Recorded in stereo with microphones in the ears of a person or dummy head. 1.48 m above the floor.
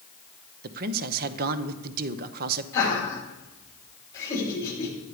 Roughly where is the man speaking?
Right.